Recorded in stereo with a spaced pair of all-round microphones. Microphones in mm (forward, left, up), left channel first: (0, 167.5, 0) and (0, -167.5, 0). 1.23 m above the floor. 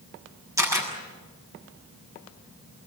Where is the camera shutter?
10° right (ahead or behind), 7 m.